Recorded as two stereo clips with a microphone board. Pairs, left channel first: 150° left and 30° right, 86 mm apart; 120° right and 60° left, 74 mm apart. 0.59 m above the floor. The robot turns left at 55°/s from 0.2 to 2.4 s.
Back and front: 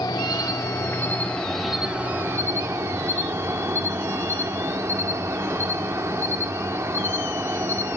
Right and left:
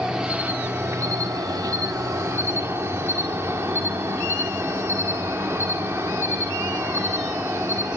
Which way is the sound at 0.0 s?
140° left.